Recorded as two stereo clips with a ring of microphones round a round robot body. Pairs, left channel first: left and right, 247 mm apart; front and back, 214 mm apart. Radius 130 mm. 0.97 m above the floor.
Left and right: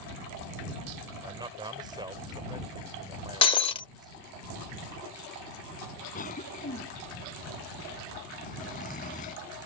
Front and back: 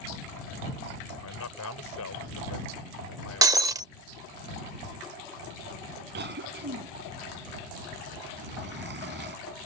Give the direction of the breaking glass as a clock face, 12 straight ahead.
8 o'clock.